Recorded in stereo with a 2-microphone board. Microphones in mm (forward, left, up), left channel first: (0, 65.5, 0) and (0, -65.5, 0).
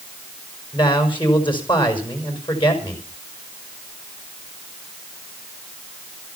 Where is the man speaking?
40° left (ahead or behind), 5.5 m.